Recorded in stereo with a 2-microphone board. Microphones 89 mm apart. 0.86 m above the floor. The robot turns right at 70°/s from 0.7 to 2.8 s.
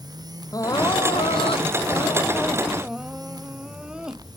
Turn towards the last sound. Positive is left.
turn(degrees=-170)